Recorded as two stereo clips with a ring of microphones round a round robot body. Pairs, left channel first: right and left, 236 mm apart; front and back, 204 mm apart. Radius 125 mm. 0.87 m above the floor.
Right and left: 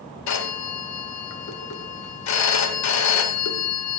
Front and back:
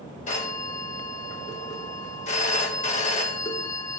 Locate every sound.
0.3 s a phone ringing: 65° right, 1.8 m